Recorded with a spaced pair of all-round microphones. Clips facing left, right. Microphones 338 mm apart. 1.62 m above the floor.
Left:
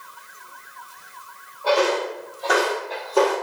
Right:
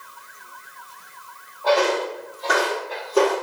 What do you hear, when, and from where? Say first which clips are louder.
1.6 s footsteps: even; 5° left (ahead or behind), 1.7 m; by 3.4 s 30° right (ahead or behind), 1.8 m